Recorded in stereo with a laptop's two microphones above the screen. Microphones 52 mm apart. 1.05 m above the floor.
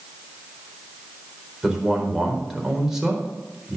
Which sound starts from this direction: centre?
A man speaking, at 1.6 s.